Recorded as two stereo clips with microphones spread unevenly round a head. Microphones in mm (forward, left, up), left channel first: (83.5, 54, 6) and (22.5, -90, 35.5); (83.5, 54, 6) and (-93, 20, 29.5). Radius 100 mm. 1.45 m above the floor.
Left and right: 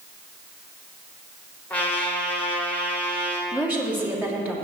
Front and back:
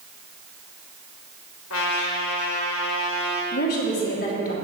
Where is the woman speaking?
35° right, 2.5 m.